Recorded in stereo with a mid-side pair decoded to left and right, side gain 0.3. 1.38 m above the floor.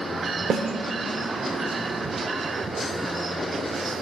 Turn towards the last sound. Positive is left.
turn(degrees=-70)